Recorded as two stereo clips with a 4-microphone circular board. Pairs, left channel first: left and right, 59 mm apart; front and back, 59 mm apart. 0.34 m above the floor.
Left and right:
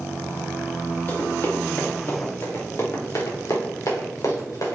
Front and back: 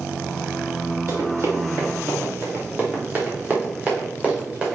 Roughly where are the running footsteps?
Behind left.